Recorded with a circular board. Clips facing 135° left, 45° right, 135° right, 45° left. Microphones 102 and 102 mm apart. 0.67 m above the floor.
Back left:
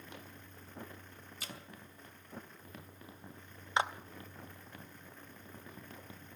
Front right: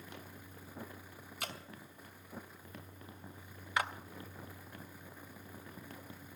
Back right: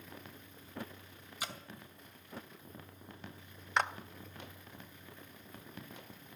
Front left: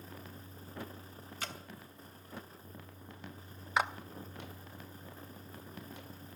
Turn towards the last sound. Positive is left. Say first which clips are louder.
# back left 3 dB, front left 1 dB
turn(degrees=120)